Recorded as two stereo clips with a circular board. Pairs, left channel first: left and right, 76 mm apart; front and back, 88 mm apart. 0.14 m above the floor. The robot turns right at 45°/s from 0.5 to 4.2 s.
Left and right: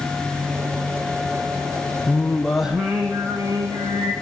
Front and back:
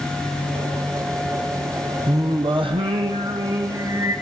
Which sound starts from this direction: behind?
Singing, at 2.1 s.